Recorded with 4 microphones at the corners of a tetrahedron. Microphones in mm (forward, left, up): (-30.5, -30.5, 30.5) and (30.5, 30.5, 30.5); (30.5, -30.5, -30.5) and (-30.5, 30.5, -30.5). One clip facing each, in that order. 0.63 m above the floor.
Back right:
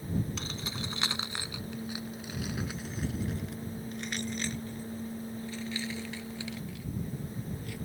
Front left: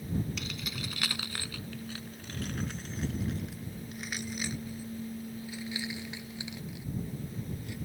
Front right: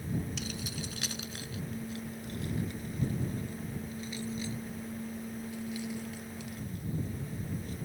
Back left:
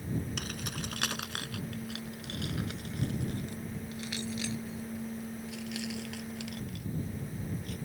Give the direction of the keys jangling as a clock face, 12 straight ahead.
6 o'clock.